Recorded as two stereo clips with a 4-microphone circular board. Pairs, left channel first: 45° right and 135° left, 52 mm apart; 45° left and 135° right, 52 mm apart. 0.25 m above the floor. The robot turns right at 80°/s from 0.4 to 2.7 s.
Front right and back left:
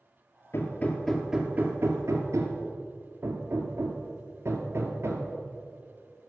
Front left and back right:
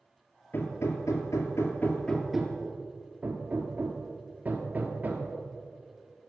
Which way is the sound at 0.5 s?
10° right.